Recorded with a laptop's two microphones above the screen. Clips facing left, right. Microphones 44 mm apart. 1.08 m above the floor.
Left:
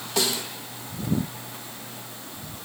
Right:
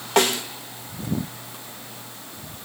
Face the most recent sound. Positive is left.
turn(degrees=-55)  # may be behind; listen again after turning